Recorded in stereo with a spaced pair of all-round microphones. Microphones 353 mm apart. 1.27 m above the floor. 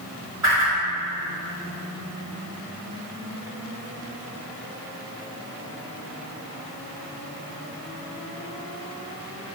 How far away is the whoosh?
About 1.4 m.